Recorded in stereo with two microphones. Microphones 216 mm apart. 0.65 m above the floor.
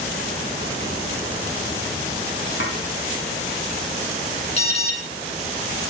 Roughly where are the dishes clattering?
Left.